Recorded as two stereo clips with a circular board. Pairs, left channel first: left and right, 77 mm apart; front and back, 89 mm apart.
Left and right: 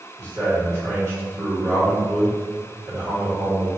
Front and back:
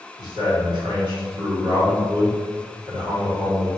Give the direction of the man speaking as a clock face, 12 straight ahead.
5 o'clock.